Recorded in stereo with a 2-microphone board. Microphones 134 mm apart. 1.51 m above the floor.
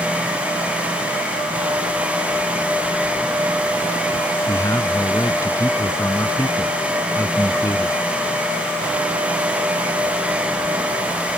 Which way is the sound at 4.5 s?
20° left (ahead or behind).